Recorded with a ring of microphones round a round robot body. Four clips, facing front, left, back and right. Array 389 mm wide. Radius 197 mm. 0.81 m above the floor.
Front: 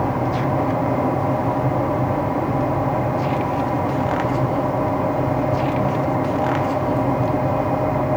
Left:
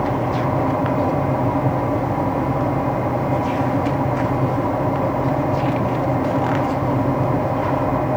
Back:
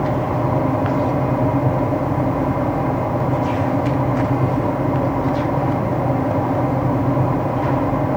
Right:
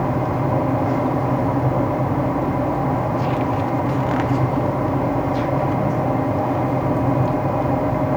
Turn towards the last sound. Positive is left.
No sound to turn to.